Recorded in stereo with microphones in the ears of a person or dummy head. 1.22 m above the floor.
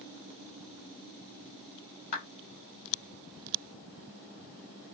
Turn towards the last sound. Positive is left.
turn(degrees=55)  # may be behind; listen again after turning